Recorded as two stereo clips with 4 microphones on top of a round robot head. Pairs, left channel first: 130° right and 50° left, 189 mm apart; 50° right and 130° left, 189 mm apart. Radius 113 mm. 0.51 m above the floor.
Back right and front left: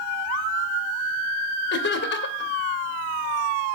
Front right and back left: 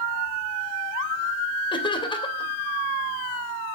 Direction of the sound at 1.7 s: 115° right.